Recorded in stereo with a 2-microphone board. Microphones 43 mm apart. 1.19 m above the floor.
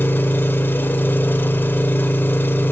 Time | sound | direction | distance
0.0 | an engine running | 60° left (ahead or behind) | 1.5 m